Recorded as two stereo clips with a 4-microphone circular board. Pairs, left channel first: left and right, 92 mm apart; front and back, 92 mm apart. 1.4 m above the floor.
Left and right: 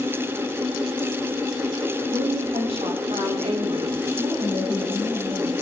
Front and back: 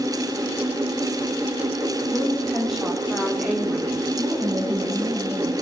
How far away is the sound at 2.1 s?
About 3 m.